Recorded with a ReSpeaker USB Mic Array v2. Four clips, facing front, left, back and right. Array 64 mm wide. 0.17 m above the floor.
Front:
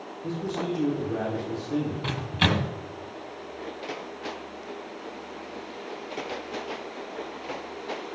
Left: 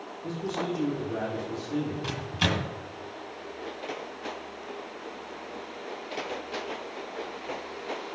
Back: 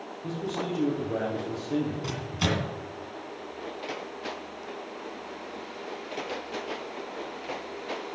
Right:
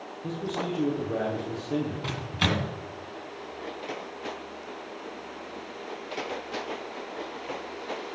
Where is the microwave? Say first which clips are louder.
Right 1 dB, front 3 dB; 15° right, 1.4 m.